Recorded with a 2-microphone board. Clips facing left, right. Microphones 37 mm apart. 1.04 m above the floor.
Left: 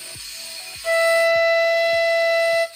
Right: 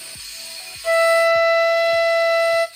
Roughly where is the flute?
Centre.